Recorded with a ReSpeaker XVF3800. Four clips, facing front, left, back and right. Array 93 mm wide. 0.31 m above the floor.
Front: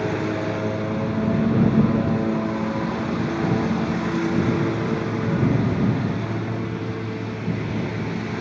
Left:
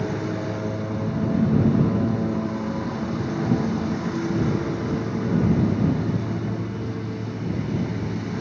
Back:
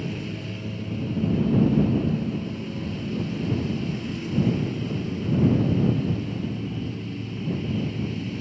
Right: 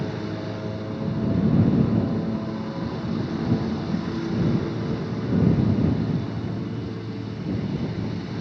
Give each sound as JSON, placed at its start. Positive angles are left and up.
{"t": 0.0, "sound": "a lawn mower", "azimuth_deg": 10}